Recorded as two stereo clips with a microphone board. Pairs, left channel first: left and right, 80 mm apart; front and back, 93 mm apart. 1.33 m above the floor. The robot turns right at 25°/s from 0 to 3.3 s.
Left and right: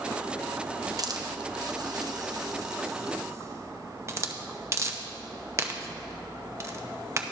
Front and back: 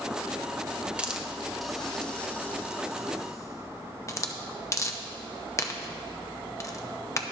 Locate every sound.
1.0 s a hiss: 105° right, 0.7 m; by 7.2 s 45° right, 0.7 m